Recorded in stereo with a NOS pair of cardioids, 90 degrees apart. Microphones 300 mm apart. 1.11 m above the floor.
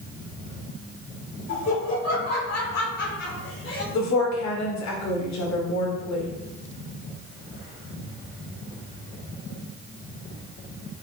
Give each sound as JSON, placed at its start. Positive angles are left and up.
{"t": 1.5, "sound": "laughter", "azimuth_deg": 65, "distance_m": 4.5}
{"t": 3.9, "sound": "a woman speaking", "azimuth_deg": 65, "distance_m": 3.5}